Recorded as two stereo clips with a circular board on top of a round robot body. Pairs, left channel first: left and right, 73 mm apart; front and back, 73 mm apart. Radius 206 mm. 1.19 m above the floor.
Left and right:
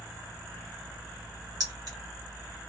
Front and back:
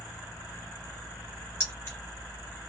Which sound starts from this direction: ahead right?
Keys jangling, at 1.6 s.